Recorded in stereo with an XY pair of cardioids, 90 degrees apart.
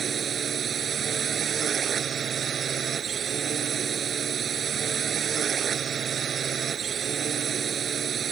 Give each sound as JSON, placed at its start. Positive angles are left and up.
{"t": 0.0, "sound": "a drone", "azimuth_deg": -60}